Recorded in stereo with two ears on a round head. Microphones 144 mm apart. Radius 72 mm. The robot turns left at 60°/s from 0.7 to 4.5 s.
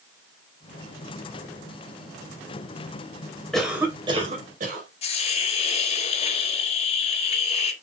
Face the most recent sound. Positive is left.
turn(degrees=40)  # may be behind; listen again after turning